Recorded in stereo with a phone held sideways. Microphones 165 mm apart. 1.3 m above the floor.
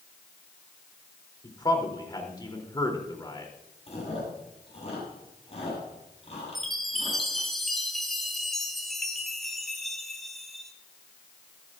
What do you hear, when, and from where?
1.4 s a man speaking: 25° left (ahead or behind), 3 m
3.9 s chewing: 40° left (ahead or behind), 8.5 m
6.5 s a chime: centre (ahead or behind), 2 m